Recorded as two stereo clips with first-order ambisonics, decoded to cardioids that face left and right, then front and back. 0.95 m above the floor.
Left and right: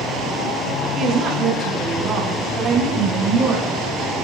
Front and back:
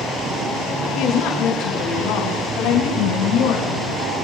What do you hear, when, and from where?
0.9 s a woman speaking: 30° right, 9 m